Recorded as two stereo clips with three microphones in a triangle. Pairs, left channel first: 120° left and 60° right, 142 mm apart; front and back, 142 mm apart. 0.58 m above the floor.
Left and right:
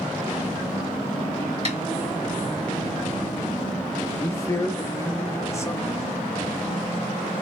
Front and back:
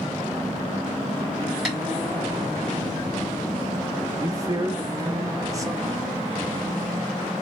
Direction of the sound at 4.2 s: 155° left.